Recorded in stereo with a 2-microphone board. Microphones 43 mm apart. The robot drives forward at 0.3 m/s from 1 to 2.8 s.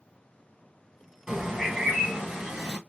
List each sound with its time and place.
1.3 s a bird: 10° right (ahead or behind), 1.2 m; by 2.8 s 5° right (ahead or behind), 1.6 m